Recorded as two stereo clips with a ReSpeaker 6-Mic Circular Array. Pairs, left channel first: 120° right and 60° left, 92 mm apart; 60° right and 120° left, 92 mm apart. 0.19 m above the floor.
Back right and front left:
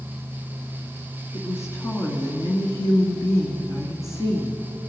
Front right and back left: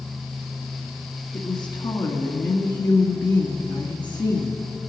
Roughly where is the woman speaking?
Right.